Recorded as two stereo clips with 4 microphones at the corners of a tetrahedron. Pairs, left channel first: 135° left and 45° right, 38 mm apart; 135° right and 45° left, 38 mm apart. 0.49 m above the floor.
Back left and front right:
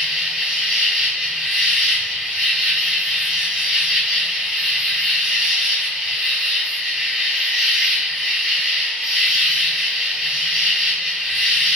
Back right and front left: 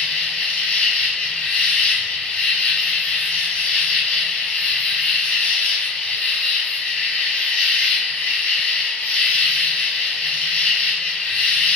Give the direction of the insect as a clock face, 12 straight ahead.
4 o'clock.